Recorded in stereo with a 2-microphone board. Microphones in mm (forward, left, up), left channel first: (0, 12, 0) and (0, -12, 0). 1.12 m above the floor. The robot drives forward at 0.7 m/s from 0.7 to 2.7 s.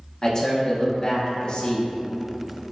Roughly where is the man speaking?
Left.